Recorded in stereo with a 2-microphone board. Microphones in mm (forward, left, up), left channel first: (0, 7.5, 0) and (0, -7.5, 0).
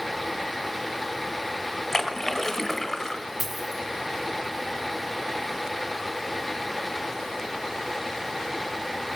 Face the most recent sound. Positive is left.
turn(degrees=0)  # may be behind; listen again after turning